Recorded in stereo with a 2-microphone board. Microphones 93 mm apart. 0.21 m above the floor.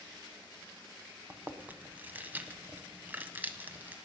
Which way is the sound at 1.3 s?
20° right (ahead or behind).